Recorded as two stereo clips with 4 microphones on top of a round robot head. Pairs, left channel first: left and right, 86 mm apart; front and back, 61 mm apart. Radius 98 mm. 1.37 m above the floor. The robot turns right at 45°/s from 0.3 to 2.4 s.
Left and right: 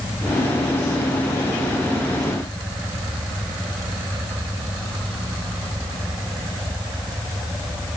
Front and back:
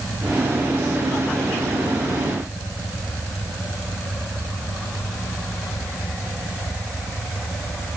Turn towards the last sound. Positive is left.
No sound to turn to.